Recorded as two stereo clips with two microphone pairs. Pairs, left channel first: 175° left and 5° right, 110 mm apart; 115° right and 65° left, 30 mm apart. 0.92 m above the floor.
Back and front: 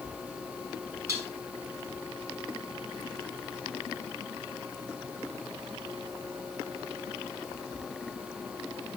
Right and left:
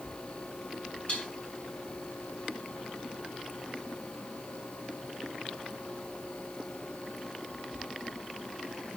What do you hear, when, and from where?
1.1 s dishes clattering: 65° right, 7 m